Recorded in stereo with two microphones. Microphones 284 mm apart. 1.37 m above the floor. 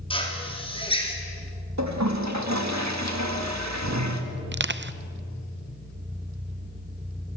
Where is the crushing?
40° right (ahead or behind), 0.7 m.